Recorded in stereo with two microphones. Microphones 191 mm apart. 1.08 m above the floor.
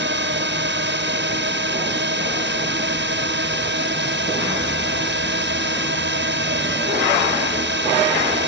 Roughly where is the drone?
Right.